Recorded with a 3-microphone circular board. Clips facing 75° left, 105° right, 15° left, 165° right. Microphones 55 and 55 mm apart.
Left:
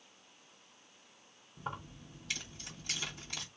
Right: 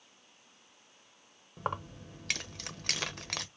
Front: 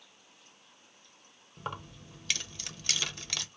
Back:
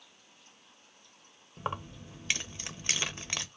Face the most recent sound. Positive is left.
turn(degrees=-100)